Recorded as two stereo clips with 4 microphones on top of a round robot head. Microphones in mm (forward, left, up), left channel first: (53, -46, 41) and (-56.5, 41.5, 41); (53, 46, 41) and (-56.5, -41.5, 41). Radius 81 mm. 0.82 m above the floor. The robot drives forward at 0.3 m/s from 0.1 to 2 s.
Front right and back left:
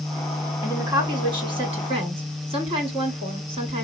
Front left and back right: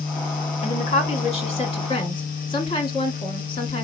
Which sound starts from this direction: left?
A woman speaking, at 0.6 s.